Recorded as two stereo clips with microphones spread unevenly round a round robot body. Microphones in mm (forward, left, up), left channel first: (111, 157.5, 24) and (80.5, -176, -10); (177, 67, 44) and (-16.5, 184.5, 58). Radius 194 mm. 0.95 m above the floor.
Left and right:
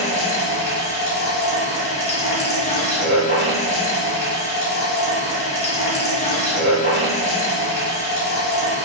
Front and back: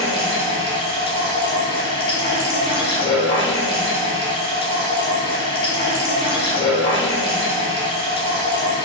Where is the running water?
35° left, 1.9 m.